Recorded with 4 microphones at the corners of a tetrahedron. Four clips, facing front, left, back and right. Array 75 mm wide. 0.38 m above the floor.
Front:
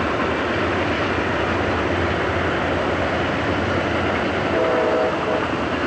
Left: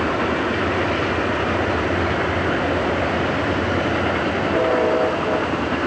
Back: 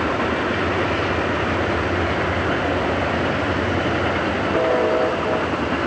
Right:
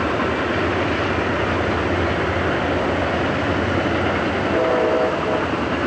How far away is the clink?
I don't hear a clink.